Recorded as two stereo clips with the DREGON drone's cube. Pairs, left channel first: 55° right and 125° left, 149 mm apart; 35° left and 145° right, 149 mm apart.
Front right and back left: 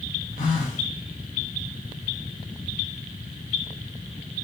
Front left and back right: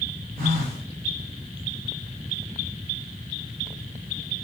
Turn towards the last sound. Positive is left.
turn(degrees=-150)